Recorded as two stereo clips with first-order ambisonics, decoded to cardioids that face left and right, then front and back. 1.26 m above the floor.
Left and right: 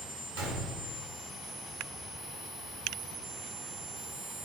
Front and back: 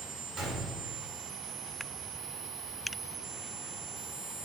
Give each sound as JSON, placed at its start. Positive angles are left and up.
{"t": 0.4, "sound": "a gunshot", "azimuth_deg": -105, "distance_m": 1.8}